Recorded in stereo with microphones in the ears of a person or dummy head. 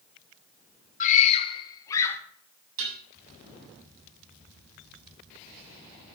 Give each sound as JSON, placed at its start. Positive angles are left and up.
{"t": 1.0, "sound": "a scream", "side_deg": 45, "distance_m": 1.4}
{"t": 2.8, "sound": "dishes clattering", "side_deg": -75, "distance_m": 7.0}